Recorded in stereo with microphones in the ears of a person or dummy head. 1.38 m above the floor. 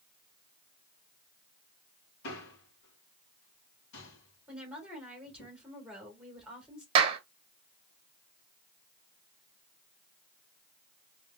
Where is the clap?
30° right (ahead or behind), 1.0 m.